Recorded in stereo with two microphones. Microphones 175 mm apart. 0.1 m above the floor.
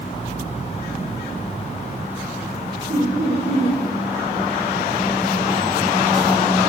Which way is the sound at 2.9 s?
70° right (ahead or behind).